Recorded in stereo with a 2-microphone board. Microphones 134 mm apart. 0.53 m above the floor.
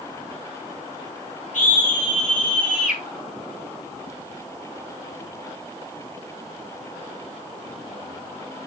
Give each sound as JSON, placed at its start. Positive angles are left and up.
{"t": 1.5, "sound": "a scream", "side_deg": 75, "distance_m": 5.0}